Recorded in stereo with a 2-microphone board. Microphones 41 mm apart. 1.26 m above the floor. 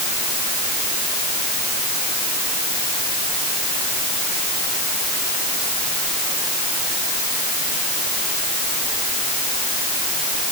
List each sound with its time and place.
Only background noise.